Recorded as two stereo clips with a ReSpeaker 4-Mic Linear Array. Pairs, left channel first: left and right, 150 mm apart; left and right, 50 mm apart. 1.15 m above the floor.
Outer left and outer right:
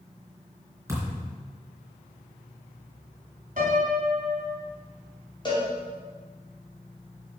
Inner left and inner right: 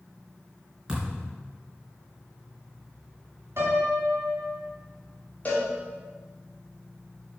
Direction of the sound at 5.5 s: 30° left (ahead or behind).